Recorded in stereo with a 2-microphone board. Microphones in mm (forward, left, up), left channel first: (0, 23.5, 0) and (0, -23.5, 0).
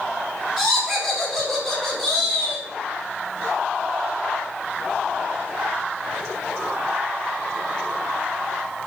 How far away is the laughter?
About 1.6 m.